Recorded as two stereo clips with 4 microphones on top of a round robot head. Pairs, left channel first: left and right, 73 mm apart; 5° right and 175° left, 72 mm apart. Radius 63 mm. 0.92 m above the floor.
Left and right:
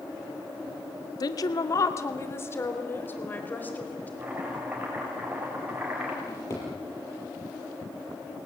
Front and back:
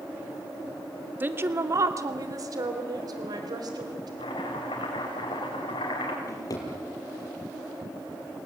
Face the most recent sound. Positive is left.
turn(degrees=30)